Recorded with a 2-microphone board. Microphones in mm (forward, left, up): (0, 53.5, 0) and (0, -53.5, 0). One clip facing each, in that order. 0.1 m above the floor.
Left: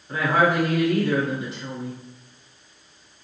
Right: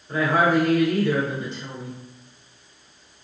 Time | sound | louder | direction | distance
0.1 | a woman speaking | right 1 dB | 10° left (ahead or behind) | 1.6 m